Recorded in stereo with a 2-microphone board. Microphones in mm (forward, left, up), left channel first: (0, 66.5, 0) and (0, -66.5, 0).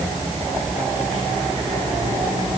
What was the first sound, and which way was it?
Only background noise.